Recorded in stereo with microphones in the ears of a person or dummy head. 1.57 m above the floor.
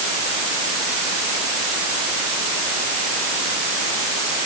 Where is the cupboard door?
No cupboard door in this recording.